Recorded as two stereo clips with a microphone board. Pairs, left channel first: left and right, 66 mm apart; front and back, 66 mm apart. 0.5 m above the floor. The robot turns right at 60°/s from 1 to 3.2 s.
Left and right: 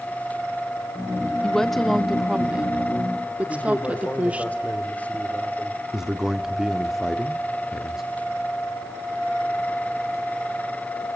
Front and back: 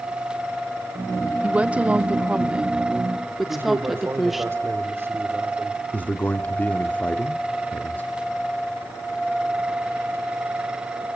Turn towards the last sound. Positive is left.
turn(degrees=-10)